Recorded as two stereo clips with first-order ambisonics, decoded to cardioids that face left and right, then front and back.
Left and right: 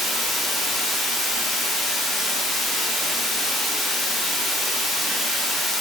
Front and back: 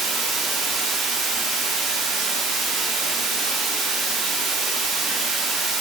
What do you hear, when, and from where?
0.0 s running water: 150° left, 0.8 m